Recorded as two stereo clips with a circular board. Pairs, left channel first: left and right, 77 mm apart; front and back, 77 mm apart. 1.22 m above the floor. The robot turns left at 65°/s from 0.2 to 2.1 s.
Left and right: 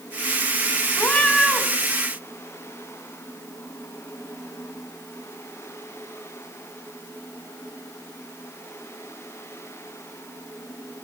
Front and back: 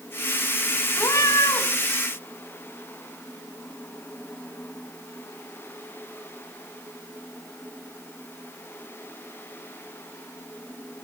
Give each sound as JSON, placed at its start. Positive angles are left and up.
{"t": 1.0, "sound": "a cat meowing", "azimuth_deg": 35, "distance_m": 0.7}